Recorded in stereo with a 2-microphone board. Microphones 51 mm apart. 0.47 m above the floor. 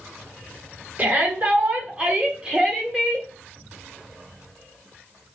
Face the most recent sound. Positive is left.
turn(degrees=-10)  # may be behind; listen again after turning